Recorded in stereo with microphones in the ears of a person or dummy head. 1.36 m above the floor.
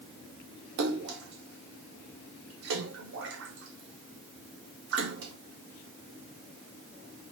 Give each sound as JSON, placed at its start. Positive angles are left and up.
{"t": 0.8, "sound": "a splash", "side_deg": -60, "distance_m": 0.8}